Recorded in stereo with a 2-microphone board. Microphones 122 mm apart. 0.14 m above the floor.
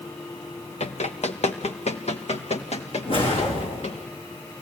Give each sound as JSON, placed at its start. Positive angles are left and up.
{"t": 0.8, "sound": "running footsteps", "side_deg": 65, "distance_m": 2.5}
{"t": 3.0, "sound": "a whoosh", "side_deg": 50, "distance_m": 8.5}